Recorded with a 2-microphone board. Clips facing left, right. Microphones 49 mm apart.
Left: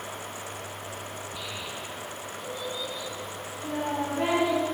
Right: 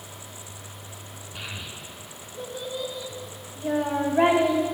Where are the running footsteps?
No running footsteps in this recording.